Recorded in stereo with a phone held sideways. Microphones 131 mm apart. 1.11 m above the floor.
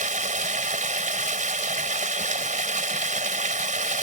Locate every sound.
0.0 s running water: 80° right